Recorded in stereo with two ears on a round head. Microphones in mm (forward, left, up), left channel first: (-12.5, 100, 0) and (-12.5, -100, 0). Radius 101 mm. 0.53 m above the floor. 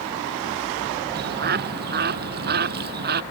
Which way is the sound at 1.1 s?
50° right (ahead or behind).